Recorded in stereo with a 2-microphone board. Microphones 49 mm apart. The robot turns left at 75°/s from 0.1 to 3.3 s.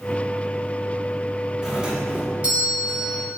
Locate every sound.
1.6 s a doorbell: 10° right (ahead or behind), 1.2 m; by 3.2 s 15° right (ahead or behind), 1.2 m